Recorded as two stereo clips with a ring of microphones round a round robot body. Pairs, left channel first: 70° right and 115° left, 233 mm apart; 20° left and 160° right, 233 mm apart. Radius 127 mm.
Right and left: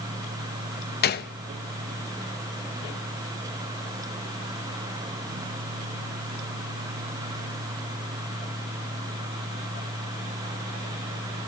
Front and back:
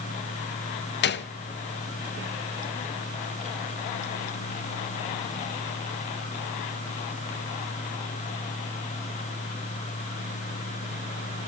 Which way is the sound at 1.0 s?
20° right.